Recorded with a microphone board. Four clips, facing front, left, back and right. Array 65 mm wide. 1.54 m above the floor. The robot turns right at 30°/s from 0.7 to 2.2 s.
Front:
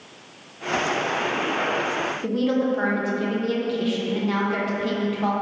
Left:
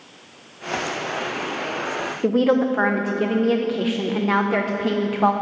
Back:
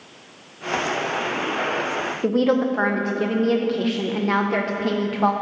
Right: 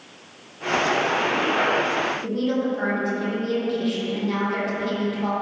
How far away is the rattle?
No rattle in this recording.